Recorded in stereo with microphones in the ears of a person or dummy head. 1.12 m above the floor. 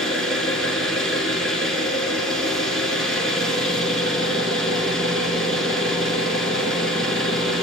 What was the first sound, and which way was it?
An engine running, 5° left (ahead or behind).